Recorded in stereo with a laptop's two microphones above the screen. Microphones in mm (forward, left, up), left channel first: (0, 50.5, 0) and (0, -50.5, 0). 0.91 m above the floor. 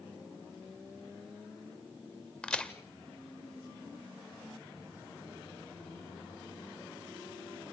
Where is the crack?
10° left (ahead or behind), 0.9 m.